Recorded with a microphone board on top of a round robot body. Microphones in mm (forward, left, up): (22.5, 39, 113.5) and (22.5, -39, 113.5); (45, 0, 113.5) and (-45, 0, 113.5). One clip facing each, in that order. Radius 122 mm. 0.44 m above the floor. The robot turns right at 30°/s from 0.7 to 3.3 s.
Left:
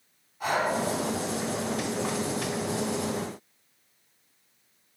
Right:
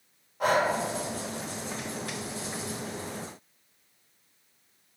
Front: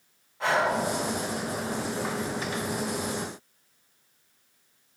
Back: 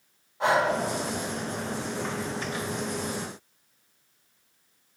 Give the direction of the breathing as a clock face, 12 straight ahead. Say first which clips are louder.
Right 3 dB, back 2 dB; 4 o'clock.